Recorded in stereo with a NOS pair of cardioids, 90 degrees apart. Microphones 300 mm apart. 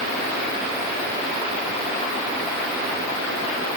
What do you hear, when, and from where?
Only background noise.